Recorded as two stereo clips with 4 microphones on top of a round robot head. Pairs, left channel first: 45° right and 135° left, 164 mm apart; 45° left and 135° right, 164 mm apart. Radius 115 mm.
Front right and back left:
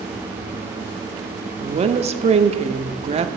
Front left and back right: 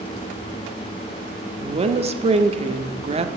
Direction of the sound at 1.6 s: Straight behind.